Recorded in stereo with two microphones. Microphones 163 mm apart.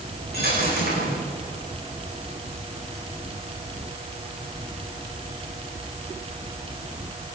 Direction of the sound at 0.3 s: 75° left (ahead or behind).